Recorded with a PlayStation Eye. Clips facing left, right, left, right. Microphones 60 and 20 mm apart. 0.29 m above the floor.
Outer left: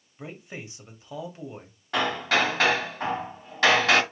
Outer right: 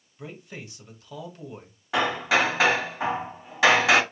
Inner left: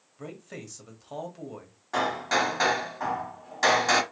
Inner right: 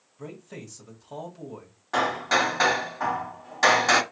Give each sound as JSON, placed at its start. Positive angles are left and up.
{"t": 0.2, "sound": "a man speaking", "side_deg": 25, "distance_m": 1.4}
{"t": 1.9, "sound": "hammering", "side_deg": -10, "distance_m": 1.0}